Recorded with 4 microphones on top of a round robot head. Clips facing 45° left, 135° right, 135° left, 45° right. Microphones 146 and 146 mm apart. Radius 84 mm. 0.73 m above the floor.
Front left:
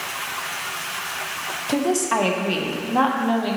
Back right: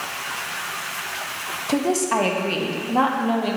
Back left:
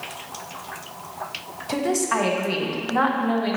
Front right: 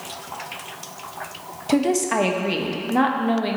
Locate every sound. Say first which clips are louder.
1.7 s a woman speaking: even, front right 4 dB; 55° right, 0.8 m